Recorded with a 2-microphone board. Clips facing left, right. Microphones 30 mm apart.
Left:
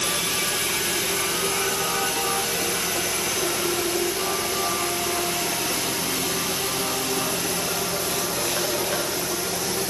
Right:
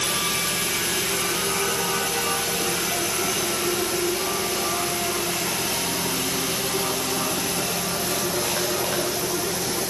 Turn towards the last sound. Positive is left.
No sound to turn to.